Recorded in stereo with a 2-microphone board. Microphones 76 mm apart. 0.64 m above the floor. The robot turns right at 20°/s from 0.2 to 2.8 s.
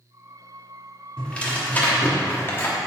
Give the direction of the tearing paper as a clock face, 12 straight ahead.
11 o'clock.